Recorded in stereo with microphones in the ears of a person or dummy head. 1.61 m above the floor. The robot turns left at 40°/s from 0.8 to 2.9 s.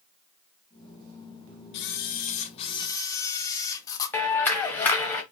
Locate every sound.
1.7 s a camera shutter: 75° left, 0.6 m; by 4.2 s 30° left, 0.6 m
4.1 s a clap: 10° left (ahead or behind), 0.8 m